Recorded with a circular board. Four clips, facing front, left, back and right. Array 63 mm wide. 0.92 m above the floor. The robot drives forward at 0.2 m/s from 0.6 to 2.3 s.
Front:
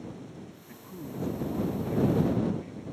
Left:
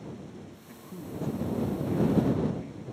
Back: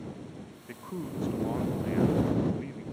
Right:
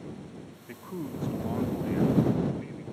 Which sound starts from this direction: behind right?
A man speaking, at 0.7 s.